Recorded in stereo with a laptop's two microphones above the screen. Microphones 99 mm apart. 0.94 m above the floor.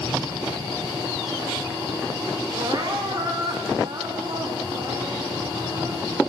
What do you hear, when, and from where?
2.5 s crying: 45° right (ahead or behind), 1.5 m